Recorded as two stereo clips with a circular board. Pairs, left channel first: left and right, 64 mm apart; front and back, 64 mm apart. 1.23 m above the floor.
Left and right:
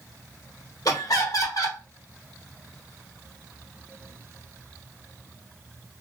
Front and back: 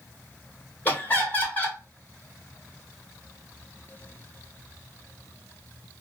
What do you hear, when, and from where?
0.8 s laughter: 65° left, 1.4 m